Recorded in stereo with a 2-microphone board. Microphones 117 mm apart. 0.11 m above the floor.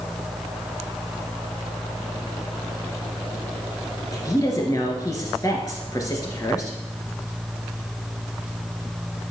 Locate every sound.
4.1 s a woman speaking: 30° left (ahead or behind), 1.5 m